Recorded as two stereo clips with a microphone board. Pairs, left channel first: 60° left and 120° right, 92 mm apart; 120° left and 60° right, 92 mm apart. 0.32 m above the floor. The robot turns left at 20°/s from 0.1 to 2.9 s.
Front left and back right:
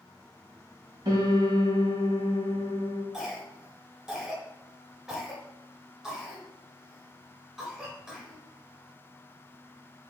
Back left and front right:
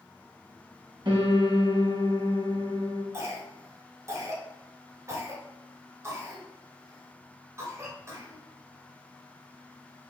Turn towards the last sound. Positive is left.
turn(degrees=-45)